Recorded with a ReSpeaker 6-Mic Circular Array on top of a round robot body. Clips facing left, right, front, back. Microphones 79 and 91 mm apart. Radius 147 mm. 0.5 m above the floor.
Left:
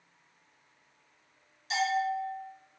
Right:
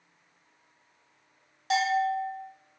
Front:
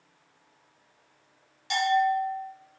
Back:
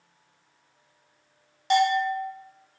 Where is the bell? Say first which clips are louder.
Right 4 dB, back 1 dB; 130° right, 0.6 m.